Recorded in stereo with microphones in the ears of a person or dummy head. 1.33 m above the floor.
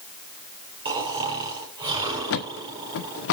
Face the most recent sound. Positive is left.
turn(degrees=65)  # may be behind; listen again after turning